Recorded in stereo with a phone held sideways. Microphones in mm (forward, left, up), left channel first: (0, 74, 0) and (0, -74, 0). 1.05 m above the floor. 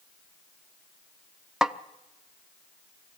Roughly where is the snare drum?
Centre.